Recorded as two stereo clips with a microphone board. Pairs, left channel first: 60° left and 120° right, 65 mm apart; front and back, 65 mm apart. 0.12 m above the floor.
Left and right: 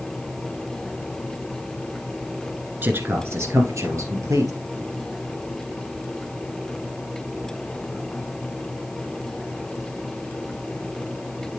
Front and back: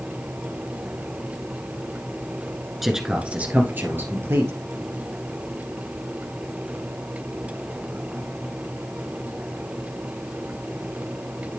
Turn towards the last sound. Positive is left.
turn(degrees=-140)